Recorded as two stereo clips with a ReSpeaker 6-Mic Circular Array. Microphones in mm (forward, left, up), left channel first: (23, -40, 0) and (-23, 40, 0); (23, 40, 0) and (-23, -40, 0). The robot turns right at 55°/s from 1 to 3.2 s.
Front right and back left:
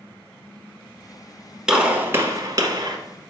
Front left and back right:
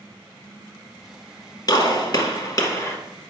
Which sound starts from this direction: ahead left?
A gunshot, at 1.7 s.